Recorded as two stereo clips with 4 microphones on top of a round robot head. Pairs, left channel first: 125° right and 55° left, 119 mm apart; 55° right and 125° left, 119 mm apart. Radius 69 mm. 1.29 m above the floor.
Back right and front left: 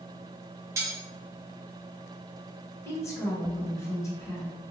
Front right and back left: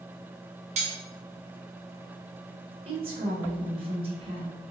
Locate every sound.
0.8 s cutlery clinking: 115° left, 0.5 m
2.9 s a woman speaking: 170° left, 0.9 m